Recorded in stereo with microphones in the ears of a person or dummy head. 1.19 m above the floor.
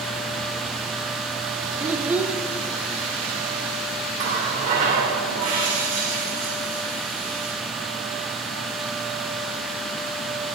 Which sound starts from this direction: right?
A running tap, at 4.2 s.